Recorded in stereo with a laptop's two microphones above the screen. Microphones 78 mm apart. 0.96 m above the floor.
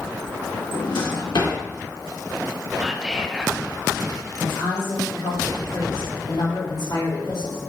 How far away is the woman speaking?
About 2.5 m.